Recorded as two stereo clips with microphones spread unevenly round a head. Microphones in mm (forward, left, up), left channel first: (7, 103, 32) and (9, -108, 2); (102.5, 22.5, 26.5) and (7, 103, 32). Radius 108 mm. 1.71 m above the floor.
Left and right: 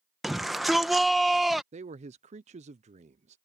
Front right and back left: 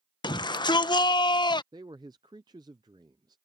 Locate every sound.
0.2 s a shout: 5° left
1.7 s a man speaking: 150° right